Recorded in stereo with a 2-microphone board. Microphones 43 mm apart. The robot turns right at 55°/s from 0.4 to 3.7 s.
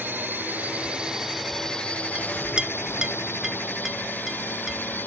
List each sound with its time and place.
0.0 s a drone: 55° right; by 5.1 s 125° left
2.1 s a clink: 20° right (ahead or behind); by 5.1 s 10° right (ahead or behind)